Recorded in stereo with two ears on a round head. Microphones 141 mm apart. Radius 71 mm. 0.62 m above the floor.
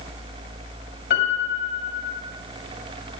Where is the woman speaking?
I don't hear a woman speaking.